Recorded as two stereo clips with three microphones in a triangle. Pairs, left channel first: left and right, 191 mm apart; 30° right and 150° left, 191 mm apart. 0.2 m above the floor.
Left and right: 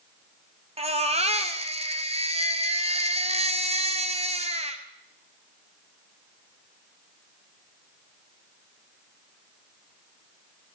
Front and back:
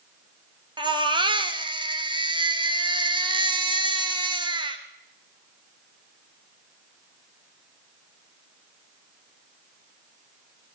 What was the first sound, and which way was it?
A baby crying, 145° right.